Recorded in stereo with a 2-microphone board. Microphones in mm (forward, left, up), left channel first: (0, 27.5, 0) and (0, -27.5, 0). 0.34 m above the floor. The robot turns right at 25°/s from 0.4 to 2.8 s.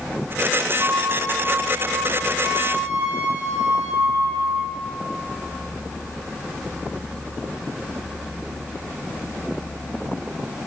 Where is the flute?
120° right, 2.0 m; by 4.8 s 70° right, 2.0 m.